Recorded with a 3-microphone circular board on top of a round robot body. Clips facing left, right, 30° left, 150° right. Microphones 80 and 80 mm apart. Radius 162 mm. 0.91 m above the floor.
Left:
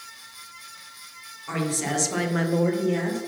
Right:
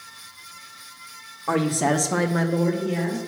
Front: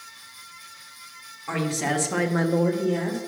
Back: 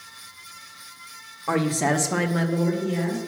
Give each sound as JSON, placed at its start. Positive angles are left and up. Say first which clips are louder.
{"t": 1.5, "sound": "a woman speaking", "louder": "right 6 dB, back 4 dB", "azimuth_deg": -110, "distance_m": 1.4}